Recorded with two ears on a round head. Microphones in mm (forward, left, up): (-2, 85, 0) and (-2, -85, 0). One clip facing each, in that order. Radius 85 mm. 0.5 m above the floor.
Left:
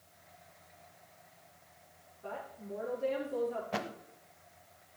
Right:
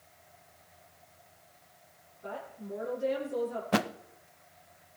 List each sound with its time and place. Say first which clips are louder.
2.2 s a woman speaking: right 2 dB; 10° right (ahead or behind), 6 m
3.7 s a thud: right 8 dB; 65° right (ahead or behind), 0.6 m